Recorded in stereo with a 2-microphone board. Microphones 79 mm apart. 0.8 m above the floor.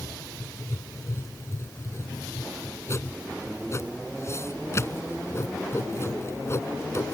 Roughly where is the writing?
Left.